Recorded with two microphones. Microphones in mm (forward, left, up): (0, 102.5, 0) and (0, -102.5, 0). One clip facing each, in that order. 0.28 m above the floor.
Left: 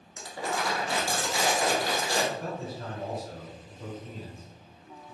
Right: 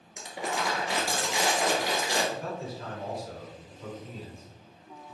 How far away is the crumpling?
About 1.1 m.